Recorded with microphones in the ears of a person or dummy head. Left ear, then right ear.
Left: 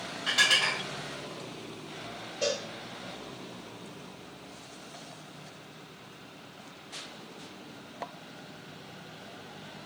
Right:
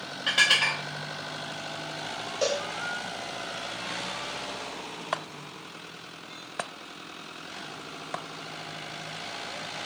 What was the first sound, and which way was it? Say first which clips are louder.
Dishes clattering: right 2 dB; 20° right (ahead or behind).